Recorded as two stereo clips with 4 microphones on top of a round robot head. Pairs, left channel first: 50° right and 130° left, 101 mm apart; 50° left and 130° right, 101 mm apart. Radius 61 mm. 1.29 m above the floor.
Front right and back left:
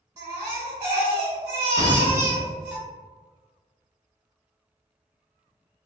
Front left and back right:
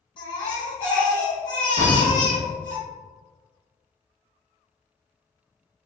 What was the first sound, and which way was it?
A baby crying, 80° left.